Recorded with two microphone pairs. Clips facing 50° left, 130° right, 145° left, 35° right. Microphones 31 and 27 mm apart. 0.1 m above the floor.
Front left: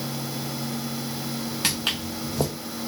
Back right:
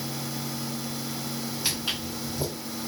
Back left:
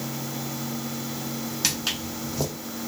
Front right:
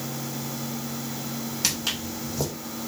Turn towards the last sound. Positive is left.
turn(degrees=60)